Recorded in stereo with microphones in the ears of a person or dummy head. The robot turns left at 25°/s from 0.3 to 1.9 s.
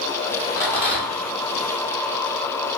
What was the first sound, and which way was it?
A rattle, 15° left (ahead or behind).